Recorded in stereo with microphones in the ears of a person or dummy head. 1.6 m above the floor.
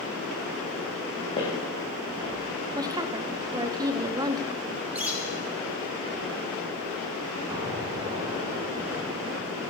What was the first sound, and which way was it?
Footsteps, 20° left (ahead or behind).